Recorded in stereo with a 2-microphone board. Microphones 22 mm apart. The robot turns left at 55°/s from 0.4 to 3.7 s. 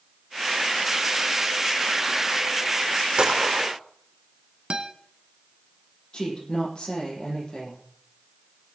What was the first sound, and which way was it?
A gunshot, 45° right (ahead or behind).